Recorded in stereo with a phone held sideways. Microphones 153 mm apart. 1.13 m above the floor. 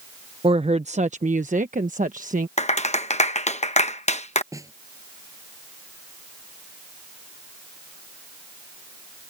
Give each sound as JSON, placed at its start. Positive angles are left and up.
{"t": 0.4, "sound": "a woman speaking", "side_deg": -35}
{"t": 2.6, "sound": "a clap", "side_deg": 45}
{"t": 4.5, "sound": "a snare drum", "side_deg": -20}